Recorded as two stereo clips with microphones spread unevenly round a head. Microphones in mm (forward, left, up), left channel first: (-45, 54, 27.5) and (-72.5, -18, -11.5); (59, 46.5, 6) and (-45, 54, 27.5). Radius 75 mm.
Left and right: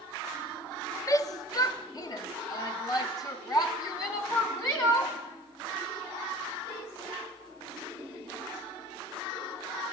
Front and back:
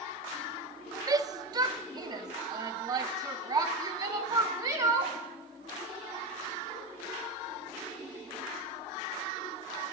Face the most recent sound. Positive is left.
turn(degrees=115)